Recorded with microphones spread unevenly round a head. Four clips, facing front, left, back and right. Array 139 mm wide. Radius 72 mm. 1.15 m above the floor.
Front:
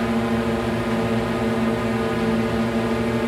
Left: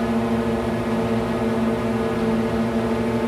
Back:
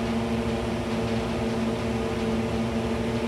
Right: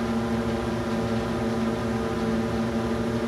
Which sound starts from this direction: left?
A drone, at 0.0 s.